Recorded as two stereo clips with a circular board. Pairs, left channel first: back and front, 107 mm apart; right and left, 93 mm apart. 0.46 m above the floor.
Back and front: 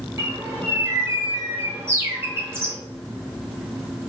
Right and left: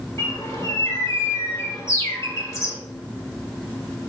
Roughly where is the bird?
Ahead right.